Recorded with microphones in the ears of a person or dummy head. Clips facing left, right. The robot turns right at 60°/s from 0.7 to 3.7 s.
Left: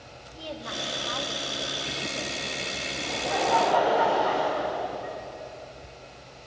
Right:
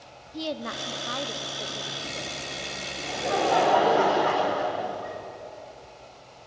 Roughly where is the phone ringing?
No phone ringing in this recording.